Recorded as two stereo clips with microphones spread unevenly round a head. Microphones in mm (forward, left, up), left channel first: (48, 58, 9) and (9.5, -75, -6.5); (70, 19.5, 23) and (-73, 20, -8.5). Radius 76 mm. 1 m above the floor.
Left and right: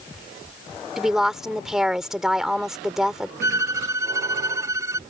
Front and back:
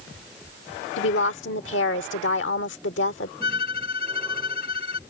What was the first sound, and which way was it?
A woman speaking, 20° right.